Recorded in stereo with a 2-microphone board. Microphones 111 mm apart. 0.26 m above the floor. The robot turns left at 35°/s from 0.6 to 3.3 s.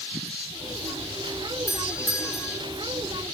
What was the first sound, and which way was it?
A doorbell, 25° left (ahead or behind).